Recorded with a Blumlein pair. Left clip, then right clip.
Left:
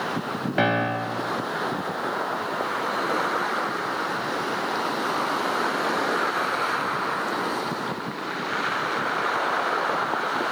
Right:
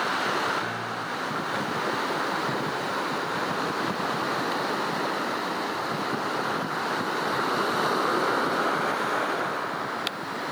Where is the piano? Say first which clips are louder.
Left 7 dB; 45° left, 1.4 m.